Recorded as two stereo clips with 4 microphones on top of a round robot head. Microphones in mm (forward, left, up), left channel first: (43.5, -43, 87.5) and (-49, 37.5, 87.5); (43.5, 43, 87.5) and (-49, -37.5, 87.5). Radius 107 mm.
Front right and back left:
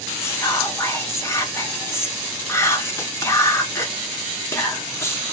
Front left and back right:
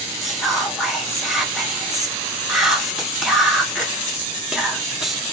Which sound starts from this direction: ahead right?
Whispering, at 0.2 s.